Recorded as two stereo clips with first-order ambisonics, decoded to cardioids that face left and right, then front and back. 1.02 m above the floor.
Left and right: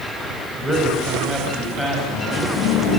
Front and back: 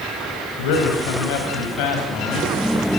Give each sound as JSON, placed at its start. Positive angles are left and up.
{"t": 0.6, "sound": "a man speaking", "azimuth_deg": 0, "distance_m": 4.5}